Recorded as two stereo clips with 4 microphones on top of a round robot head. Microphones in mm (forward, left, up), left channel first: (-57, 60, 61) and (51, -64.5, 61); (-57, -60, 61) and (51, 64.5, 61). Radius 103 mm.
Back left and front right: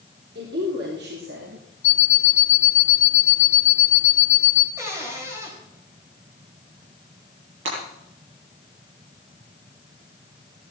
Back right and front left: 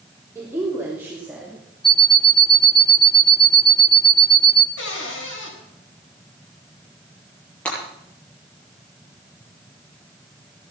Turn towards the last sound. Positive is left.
turn(degrees=-50)